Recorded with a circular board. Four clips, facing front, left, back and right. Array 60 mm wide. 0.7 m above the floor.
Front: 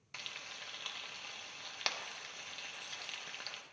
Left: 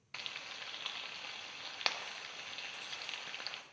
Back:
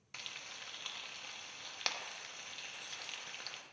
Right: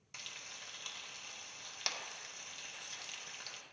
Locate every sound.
0.1 s frying: 85° left, 0.6 m